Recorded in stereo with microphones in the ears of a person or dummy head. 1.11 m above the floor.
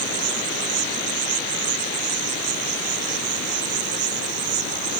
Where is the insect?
85° right.